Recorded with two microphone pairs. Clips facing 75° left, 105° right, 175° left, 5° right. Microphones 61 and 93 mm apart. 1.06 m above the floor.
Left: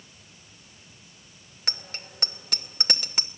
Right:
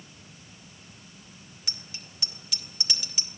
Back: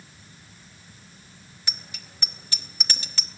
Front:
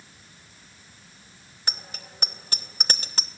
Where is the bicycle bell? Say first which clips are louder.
Left 8 dB, front 5 dB; 40° left, 2 m.